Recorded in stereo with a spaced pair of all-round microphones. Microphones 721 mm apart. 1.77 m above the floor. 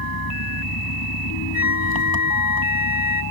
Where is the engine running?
30° left (ahead or behind).